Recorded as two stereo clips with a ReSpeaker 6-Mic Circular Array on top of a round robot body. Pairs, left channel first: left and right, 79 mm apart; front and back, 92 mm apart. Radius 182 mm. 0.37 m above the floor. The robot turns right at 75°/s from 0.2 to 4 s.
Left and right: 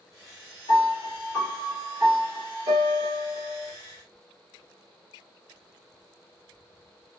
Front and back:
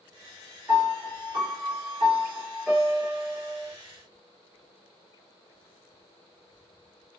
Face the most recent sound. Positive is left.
turn(degrees=0)